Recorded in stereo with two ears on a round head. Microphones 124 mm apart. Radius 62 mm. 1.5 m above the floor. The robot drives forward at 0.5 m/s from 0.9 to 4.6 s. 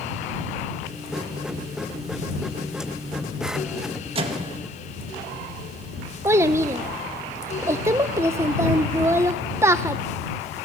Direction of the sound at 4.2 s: 40° right (ahead or behind).